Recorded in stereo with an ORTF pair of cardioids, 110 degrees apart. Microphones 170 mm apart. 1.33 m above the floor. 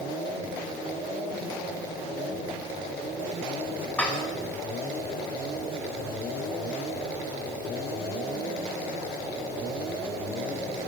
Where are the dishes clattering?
5° left, 4.5 m.